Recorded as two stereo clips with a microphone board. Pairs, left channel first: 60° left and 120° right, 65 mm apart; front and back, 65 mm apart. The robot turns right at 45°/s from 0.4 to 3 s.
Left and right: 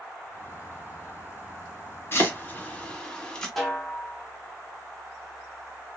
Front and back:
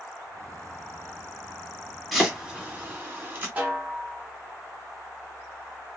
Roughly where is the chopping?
Left.